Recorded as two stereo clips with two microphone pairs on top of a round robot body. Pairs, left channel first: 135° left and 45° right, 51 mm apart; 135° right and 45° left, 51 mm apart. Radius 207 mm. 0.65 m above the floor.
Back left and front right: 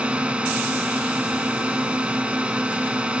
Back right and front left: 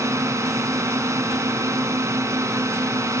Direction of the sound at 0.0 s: 25° left.